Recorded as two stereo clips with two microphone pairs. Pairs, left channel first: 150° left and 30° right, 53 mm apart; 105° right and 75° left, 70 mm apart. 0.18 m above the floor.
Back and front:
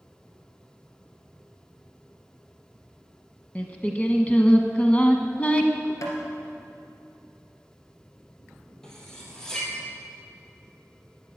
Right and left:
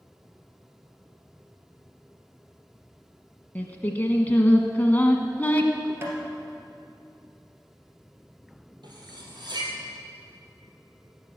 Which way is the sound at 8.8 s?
70° left.